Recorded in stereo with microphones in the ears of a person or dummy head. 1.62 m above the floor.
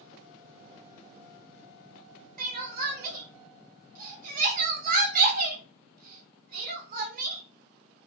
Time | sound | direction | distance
2.4 | crying | 50° right (ahead or behind) | 0.8 m